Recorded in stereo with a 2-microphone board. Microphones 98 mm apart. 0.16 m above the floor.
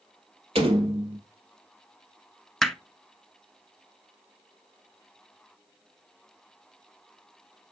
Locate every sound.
0.6 s a door slam: 70° right (ahead or behind), 3.5 m
2.6 s hammering: 5° left (ahead or behind), 0.8 m